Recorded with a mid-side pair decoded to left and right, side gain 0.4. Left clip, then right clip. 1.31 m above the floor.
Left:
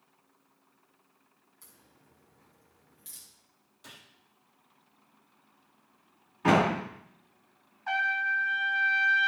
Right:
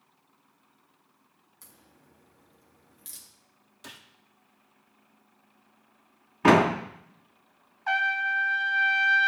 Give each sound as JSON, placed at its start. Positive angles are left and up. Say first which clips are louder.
{"t": 1.6, "sound": "a crack", "louder": "right 3 dB", "azimuth_deg": -45, "distance_m": 3.0}
{"t": 3.8, "sound": "a gunshot", "louder": "right 4 dB", "azimuth_deg": -55, "distance_m": 1.8}
{"t": 6.4, "sound": "a door slam", "louder": "right 4 dB", "azimuth_deg": -65, "distance_m": 1.9}
{"t": 7.9, "sound": "a trumpet", "louder": "right 2 dB", "azimuth_deg": -40, "distance_m": 1.2}